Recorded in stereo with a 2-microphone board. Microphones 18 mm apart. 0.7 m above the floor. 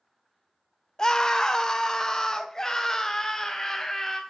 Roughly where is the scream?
Left.